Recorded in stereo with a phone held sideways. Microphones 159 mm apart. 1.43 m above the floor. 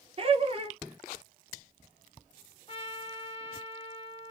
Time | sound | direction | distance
0.2 | laughter | 35° right (ahead or behind) | 0.7 m
2.7 | a trumpet | 35° left (ahead or behind) | 1.1 m